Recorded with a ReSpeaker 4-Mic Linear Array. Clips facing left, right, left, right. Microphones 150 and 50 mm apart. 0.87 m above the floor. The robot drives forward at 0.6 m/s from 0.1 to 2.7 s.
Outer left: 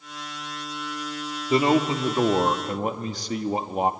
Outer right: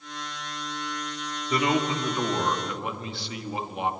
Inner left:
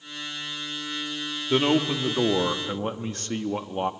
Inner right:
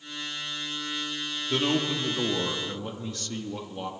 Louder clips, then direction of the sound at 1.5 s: Outer left 5 dB, inner left 5 dB; 30° left (ahead or behind).